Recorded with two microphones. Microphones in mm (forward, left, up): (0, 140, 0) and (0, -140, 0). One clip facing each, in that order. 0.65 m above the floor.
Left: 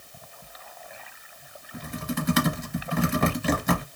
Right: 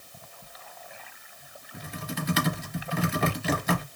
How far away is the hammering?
I don't hear hammering.